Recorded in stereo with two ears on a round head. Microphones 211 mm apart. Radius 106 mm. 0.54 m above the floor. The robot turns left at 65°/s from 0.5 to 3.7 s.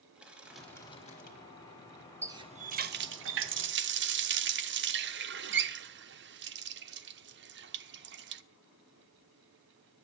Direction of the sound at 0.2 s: 175° right.